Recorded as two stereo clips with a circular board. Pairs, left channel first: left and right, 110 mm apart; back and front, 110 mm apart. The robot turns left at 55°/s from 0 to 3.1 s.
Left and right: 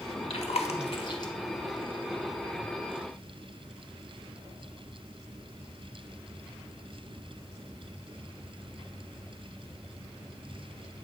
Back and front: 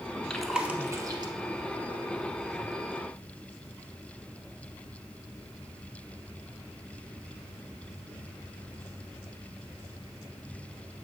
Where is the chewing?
95° left, 0.7 m; by 1.3 s 40° left, 0.7 m.